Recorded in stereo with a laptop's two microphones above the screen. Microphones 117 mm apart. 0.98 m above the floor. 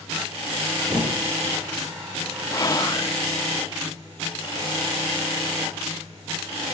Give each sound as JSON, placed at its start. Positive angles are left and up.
{"t": 0.9, "sound": "a thud", "side_deg": -30, "distance_m": 5.0}
{"t": 2.5, "sound": "whispering", "side_deg": 30, "distance_m": 1.2}